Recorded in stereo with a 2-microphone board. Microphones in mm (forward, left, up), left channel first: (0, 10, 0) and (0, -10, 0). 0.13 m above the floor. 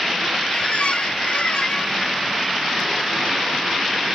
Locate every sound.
0.5 s a squeak: 60° left (ahead or behind), 0.6 m